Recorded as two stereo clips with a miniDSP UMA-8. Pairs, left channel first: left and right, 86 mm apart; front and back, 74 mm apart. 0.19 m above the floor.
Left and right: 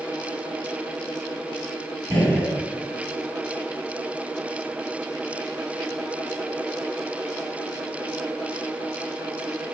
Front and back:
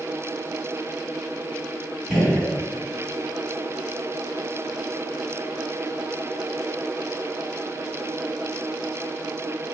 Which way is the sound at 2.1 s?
130° right.